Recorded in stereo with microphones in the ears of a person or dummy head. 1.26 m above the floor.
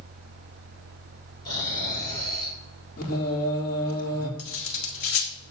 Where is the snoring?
20° left (ahead or behind), 6.5 m.